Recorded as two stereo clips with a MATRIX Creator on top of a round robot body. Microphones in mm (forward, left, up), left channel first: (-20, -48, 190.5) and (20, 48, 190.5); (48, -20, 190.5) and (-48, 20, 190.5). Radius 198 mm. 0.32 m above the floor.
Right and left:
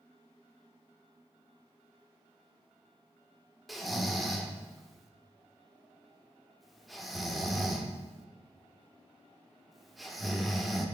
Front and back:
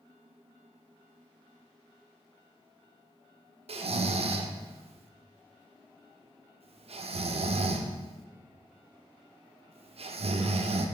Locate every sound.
3.7 s snoring: 155° left, 0.5 m